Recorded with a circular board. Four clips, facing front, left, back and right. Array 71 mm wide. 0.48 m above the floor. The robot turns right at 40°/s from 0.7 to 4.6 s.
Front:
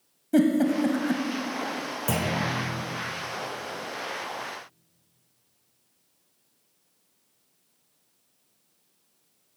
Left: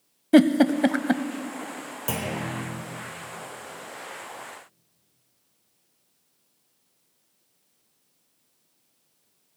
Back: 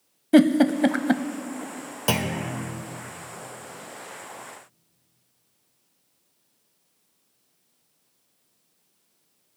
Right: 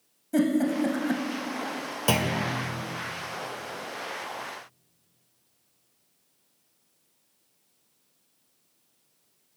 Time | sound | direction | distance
0.3 | a giggle | 125° left | 0.5 m
2.1 | a clunk | 140° right | 1.1 m